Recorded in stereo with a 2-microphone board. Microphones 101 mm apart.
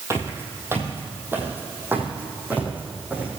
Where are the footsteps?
30° right (ahead or behind), 2.5 m; by 3.3 s 15° right (ahead or behind), 4 m.